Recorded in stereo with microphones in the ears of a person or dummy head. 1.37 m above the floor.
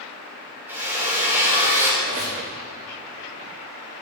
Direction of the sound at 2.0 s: 40° right (ahead or behind).